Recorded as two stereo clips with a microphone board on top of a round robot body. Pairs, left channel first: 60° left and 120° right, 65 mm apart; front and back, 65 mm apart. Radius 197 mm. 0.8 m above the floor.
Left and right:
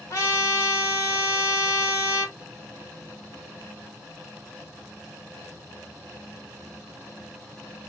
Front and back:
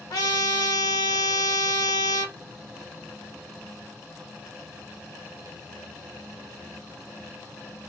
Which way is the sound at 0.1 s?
15° left.